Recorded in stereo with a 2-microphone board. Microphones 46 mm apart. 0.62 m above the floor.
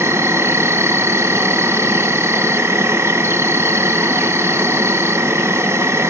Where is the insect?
75° right (ahead or behind), 1.8 m.